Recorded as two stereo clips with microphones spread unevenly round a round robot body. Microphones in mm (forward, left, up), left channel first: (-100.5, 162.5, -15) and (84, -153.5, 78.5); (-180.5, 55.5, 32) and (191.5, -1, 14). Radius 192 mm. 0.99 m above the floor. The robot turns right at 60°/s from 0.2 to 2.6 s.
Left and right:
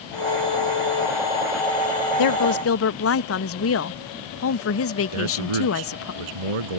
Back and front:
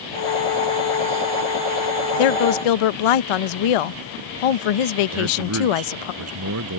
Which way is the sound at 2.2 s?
145° left.